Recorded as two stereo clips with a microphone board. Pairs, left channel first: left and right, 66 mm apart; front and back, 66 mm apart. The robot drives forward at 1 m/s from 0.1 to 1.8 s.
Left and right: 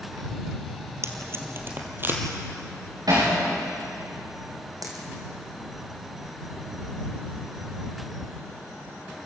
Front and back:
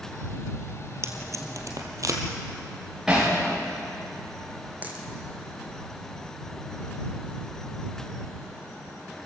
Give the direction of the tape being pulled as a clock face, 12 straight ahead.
4 o'clock.